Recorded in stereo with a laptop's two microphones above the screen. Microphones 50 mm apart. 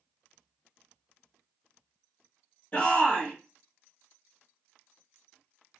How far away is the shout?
About 1.3 m.